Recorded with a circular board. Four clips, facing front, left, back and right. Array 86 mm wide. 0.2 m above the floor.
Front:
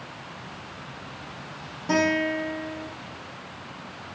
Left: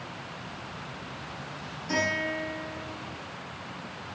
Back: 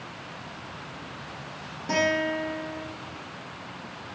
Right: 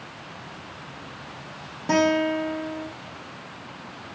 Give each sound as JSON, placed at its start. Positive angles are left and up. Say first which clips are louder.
{"t": 1.9, "sound": "a guitar", "louder": "right 9 dB, front 2 dB", "azimuth_deg": -85, "distance_m": 5.5}